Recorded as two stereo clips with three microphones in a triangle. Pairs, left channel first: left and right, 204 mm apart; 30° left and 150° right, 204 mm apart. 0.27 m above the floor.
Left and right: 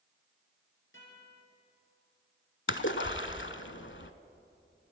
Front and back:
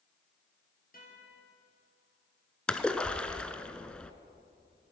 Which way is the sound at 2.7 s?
115° left.